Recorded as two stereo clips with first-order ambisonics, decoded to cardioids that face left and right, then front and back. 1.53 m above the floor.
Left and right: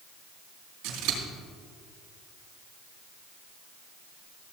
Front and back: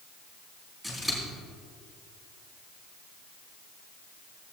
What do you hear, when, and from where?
0.8 s scissors: 80° right, 3.5 m